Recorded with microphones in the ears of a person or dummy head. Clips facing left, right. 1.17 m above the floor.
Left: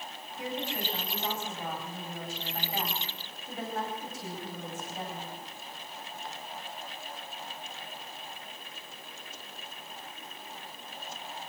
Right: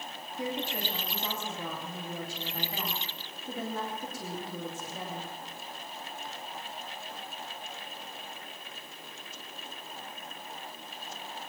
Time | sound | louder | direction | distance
0.4 | a woman speaking | right 1 dB | 80° right | 4 m